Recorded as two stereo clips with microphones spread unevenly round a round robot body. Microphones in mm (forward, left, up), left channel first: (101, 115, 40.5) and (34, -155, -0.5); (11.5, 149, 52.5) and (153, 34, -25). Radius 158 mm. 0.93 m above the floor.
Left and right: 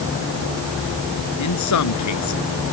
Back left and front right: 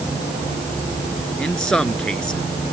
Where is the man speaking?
55° left.